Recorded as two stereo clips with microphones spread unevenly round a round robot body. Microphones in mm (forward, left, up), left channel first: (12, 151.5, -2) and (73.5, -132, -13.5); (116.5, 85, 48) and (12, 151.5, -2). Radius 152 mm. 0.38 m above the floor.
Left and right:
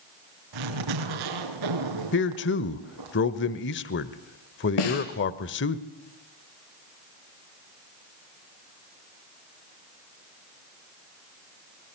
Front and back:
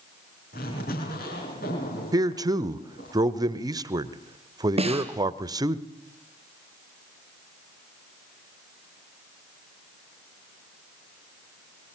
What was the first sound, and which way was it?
A zipper, 85° right.